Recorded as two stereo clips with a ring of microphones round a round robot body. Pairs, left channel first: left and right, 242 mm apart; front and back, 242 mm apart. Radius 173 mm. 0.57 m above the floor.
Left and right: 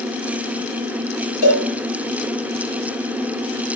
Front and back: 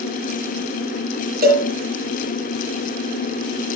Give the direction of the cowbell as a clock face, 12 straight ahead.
8 o'clock.